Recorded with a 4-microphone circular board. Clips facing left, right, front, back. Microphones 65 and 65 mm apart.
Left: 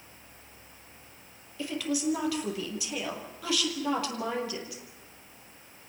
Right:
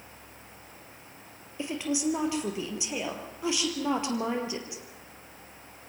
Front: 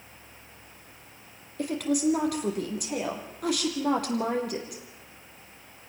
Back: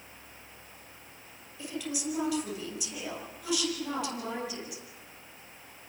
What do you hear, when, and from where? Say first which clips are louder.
1.6 s a woman speaking: right 1 dB, front 10 dB; 25° right, 4 m